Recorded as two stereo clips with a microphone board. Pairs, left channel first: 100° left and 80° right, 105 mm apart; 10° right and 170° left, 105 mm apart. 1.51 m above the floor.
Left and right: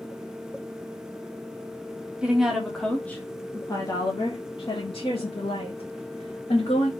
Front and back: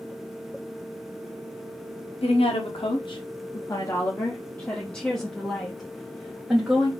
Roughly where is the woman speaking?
Ahead.